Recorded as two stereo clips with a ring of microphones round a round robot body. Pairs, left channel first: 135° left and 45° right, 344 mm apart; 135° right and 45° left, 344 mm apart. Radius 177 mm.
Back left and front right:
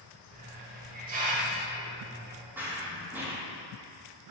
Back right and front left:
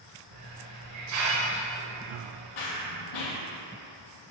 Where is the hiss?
20° left, 1.2 m.